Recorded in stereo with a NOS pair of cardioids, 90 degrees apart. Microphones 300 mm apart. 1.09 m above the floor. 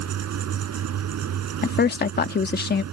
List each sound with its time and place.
0.0 s a fan: 60° right
1.6 s a woman speaking: 35° left